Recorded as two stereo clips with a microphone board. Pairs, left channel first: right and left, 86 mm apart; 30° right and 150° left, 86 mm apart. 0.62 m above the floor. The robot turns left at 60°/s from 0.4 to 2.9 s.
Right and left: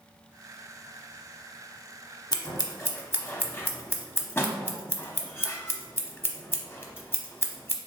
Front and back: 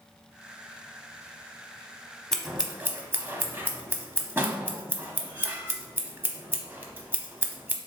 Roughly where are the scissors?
Behind right.